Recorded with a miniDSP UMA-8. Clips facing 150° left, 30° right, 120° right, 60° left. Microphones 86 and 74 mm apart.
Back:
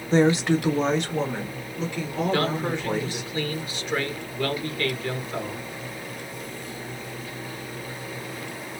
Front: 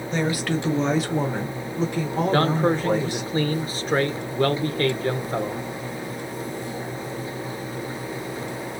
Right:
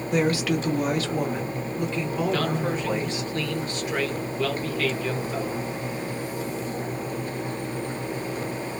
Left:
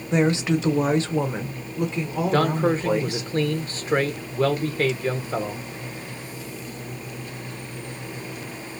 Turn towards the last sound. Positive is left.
turn(degrees=15)